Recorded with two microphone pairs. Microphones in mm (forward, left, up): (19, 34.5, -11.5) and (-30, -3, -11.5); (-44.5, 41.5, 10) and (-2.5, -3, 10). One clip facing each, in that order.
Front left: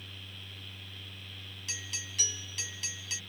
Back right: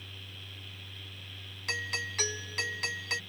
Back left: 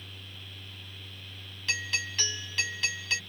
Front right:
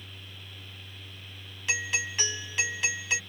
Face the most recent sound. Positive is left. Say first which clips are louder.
# back right 10 dB, front right 2 dB
turn(degrees=-120)